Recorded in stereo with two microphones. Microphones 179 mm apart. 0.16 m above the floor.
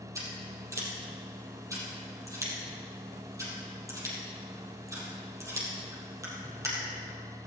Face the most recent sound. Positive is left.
turn(degrees=-20)  # may be behind; listen again after turning